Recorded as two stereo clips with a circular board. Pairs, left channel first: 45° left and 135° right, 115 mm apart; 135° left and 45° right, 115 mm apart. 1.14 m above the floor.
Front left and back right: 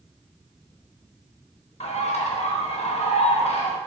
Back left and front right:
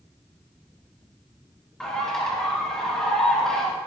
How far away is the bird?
About 1.2 m.